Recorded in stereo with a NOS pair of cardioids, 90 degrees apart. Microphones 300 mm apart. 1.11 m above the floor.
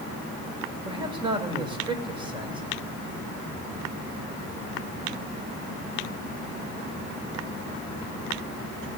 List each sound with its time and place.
0.8 s a man speaking: 15° right, 4 m